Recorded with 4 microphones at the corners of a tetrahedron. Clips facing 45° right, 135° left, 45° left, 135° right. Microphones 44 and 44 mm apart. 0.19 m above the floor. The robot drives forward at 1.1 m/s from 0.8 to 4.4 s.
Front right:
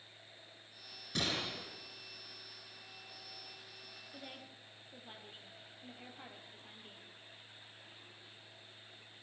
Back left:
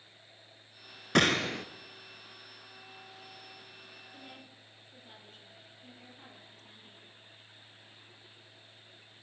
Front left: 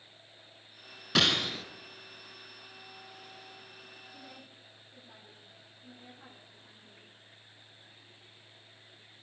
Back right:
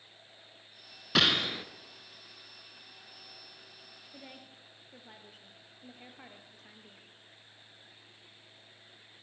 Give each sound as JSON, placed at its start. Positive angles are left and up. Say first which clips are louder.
{"t": 1.1, "sound": "a gunshot", "louder": "back left 12 dB, back right 1 dB", "azimuth_deg": 135, "distance_m": 1.2}
{"t": 4.1, "sound": "a woman speaking", "louder": "even, even", "azimuth_deg": -105, "distance_m": 4.0}